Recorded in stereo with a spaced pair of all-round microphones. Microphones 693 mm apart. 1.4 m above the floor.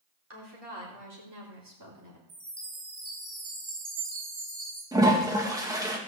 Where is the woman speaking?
35° right (ahead or behind), 4 m; by 2.2 s 25° right (ahead or behind), 3.5 m.